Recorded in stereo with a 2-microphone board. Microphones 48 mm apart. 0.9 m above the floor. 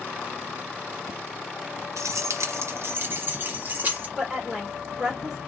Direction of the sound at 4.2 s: 15° right (ahead or behind).